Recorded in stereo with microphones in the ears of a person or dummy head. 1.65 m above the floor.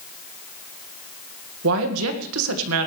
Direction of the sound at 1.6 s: 80° right.